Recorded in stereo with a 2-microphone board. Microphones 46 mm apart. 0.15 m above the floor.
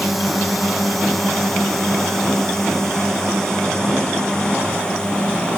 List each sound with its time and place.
0.0 s a drone: centre (ahead or behind); by 5.6 s 20° left (ahead or behind)